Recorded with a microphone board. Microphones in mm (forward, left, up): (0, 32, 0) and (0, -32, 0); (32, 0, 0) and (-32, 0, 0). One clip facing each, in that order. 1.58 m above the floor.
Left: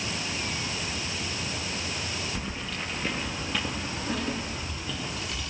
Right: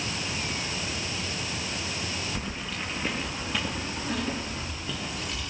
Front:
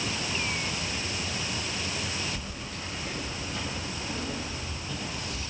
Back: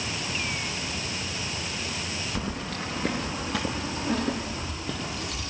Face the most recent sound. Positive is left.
turn(degrees=180)